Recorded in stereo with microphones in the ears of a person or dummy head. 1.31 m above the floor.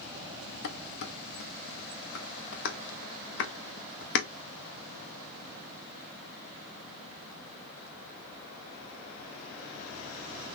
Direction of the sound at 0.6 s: 60° left (ahead or behind).